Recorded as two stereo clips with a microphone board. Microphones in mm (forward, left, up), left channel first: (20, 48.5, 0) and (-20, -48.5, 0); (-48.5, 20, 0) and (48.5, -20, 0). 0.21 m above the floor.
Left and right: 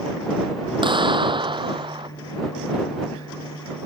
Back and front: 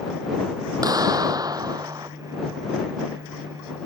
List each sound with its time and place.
0.8 s a clap: 75° right